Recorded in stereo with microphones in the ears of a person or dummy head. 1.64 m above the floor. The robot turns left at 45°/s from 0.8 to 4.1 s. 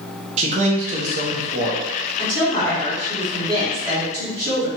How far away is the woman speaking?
About 1.9 m.